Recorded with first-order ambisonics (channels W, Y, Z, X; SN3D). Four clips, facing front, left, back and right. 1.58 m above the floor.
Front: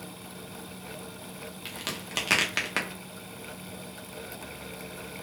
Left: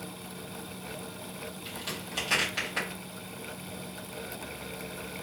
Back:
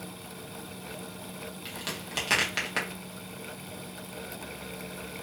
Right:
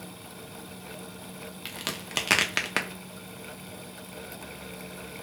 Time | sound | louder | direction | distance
1.6 | a crack | right 5 dB, front 2 dB | 75° right | 0.5 m